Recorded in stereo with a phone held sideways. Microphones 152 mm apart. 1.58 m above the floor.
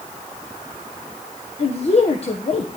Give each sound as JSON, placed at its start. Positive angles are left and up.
{"t": 1.6, "sound": "a woman speaking", "side_deg": 40, "distance_m": 1.2}